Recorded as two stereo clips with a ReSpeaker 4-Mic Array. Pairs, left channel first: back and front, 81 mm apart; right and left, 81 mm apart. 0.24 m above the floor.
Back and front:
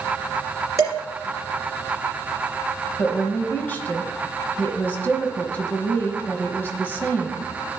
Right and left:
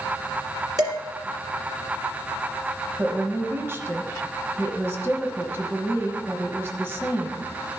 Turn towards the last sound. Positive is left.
turn(degrees=130)